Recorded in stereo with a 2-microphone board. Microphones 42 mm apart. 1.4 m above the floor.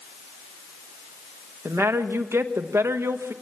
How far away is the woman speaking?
About 1.3 m.